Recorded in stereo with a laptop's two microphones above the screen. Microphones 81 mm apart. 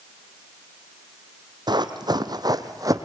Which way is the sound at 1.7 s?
60° right (ahead or behind).